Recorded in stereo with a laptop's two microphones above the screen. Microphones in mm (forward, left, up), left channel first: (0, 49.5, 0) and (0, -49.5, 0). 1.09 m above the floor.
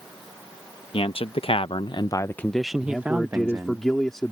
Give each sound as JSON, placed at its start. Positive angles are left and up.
{"t": 0.9, "sound": "a man speaking", "side_deg": 70}
{"t": 2.8, "sound": "a man speaking", "side_deg": 5}